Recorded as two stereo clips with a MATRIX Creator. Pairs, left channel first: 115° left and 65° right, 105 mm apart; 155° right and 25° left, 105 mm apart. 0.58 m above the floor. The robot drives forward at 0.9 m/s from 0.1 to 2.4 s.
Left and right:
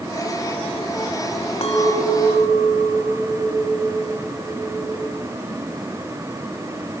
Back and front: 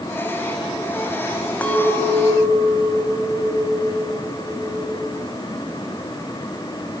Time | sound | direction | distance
1.6 | a clink | 125° left | 3 m